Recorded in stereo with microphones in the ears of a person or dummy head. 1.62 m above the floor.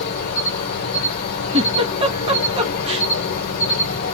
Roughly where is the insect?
Left.